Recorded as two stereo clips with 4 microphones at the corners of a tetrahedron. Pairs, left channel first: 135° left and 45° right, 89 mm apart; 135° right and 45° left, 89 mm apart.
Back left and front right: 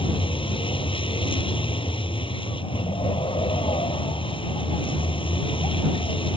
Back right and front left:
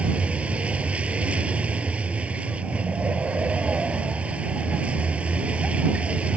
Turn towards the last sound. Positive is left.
turn(degrees=120)